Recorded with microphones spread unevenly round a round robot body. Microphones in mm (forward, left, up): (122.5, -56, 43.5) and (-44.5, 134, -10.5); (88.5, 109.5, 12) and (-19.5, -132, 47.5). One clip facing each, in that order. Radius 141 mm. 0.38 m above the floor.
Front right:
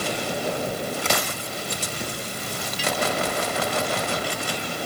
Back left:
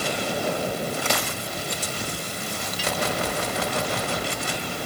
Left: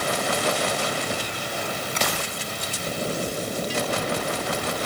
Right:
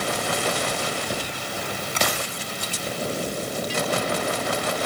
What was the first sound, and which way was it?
Only background noise.